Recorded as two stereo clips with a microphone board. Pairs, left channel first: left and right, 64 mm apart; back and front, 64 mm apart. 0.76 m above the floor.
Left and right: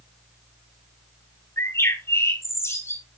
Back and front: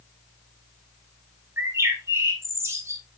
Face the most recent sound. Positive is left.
turn(degrees=45)